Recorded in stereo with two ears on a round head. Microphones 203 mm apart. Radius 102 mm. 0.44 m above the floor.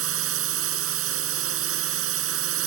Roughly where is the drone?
Right.